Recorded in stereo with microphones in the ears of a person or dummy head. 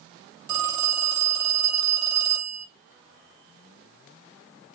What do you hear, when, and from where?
0.5 s a phone ringing: 25° right (ahead or behind), 1.2 m